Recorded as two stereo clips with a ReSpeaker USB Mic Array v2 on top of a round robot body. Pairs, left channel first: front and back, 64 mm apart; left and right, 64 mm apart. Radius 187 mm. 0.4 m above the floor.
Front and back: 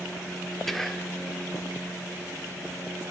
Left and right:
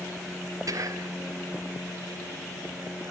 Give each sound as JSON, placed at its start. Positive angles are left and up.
{"t": 0.7, "sound": "whispering", "azimuth_deg": -85, "distance_m": 1.4}